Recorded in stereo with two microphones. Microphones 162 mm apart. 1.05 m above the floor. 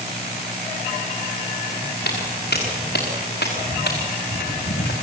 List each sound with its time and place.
2.0 s footsteps: 65° left (ahead or behind), 6 m; by 4.9 s 70° left (ahead or behind), 3.5 m